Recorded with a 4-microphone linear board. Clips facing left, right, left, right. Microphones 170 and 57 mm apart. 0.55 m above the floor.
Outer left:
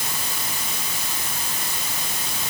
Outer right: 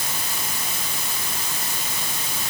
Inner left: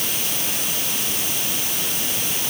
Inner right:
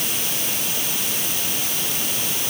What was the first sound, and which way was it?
Only background noise.